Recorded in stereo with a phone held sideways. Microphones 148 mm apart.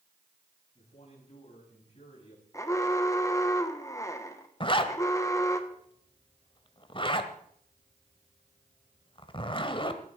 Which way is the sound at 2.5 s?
20° left (ahead or behind).